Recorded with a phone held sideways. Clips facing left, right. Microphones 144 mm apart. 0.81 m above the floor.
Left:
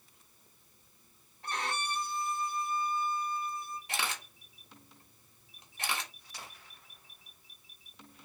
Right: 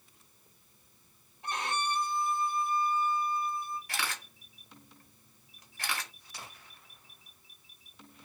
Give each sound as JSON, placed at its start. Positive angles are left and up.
{"t": 1.4, "sound": "a violin", "side_deg": -20, "distance_m": 1.3}
{"t": 3.9, "sound": "a camera shutter", "side_deg": 20, "distance_m": 1.1}